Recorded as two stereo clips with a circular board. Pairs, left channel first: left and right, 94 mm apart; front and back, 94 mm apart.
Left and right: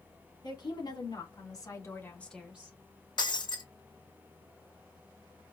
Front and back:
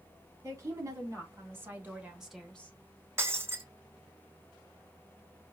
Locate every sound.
0.4 s a woman speaking: 120° left, 3 m; by 2.8 s 55° right, 1.2 m
3.2 s breaking glass: 115° left, 0.7 m